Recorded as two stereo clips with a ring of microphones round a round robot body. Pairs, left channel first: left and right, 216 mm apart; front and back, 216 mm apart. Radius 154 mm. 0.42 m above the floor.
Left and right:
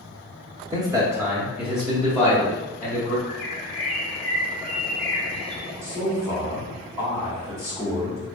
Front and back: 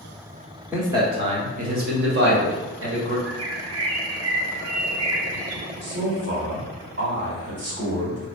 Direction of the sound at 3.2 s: 175° left.